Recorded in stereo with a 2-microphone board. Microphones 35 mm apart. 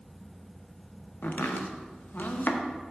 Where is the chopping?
75° left (ahead or behind), 0.8 m.